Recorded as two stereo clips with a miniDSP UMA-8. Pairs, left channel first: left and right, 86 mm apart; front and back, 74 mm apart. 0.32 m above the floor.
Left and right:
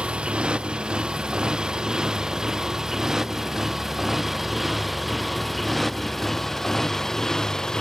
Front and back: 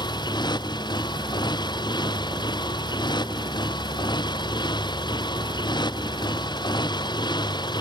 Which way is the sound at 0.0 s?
10° right.